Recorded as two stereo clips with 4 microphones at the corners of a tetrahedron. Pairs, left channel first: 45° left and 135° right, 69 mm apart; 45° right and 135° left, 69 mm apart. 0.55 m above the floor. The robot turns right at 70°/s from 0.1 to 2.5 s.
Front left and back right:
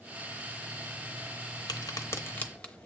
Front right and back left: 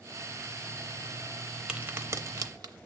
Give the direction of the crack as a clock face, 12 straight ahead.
10 o'clock.